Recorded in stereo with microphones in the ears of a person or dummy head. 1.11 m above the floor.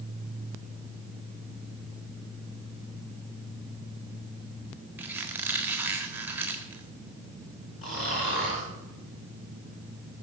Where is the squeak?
10° right (ahead or behind), 1.4 m.